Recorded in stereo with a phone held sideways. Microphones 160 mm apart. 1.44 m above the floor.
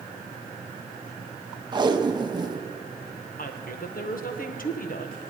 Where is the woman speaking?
60° left (ahead or behind), 1.3 m.